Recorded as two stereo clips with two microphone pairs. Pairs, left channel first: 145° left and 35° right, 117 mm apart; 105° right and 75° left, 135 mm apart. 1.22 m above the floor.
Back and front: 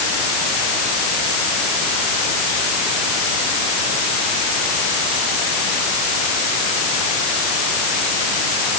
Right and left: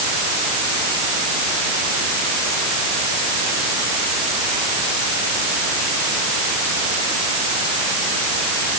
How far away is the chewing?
No chewing in this recording.